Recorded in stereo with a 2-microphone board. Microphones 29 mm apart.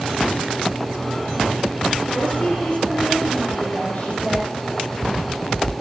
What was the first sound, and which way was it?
A woman speaking, 45° left (ahead or behind).